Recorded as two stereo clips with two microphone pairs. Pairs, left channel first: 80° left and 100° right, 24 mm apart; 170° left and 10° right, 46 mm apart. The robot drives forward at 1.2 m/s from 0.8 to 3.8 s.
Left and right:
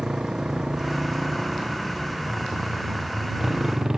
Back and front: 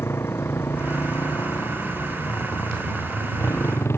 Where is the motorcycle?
160° right; by 4.0 s 165° right.